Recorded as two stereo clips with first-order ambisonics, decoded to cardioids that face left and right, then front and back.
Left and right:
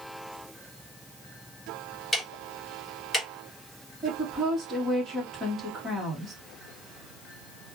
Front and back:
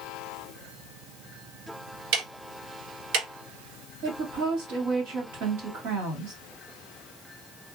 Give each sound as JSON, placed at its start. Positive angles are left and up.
{"t": 2.1, "sound": "ticking", "azimuth_deg": 170, "distance_m": 1.3}
{"t": 4.0, "sound": "a woman speaking", "azimuth_deg": -175, "distance_m": 1.6}